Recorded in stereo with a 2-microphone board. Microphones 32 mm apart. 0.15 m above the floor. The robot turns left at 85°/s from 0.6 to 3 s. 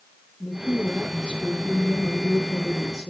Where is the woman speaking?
10° left, 4 m; by 3.1 s 170° left, 4 m.